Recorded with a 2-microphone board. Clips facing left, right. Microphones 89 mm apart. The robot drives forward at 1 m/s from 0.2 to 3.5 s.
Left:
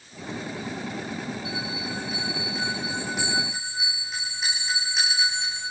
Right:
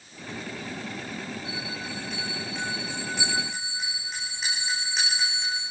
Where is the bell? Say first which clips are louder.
Left 3 dB; 5° left (ahead or behind), 8 m.